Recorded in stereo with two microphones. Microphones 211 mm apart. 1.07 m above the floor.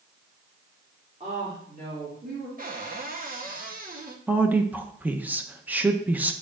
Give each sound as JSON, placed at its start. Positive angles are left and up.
{"t": 1.2, "sound": "a woman speaking", "side_deg": -30, "distance_m": 2.5}
{"t": 2.6, "sound": "a cupboard door", "side_deg": -45, "distance_m": 0.9}
{"t": 4.3, "sound": "a woman speaking", "side_deg": -10, "distance_m": 0.7}